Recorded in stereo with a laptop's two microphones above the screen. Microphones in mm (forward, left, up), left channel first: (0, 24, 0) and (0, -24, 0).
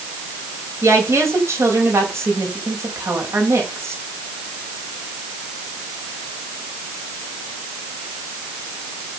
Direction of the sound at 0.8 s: 85° right.